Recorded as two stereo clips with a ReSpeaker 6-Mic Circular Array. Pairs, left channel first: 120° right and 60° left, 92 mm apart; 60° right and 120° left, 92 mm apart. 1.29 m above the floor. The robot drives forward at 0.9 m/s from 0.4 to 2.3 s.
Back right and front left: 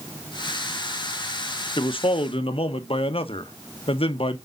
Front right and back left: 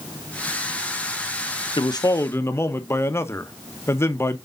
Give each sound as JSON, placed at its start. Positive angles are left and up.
{"t": 1.8, "sound": "a man speaking", "azimuth_deg": -90, "distance_m": 0.8}